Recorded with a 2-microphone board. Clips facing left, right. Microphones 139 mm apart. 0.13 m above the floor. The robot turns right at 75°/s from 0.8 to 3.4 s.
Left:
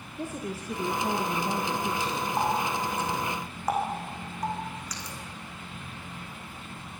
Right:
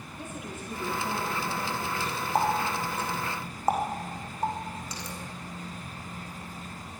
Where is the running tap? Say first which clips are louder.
Right 2 dB; 70° right (ahead or behind), 5 m; by 5.2 s 25° right (ahead or behind), 5 m.